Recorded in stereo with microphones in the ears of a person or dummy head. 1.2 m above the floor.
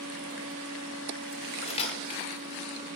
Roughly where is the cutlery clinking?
Left.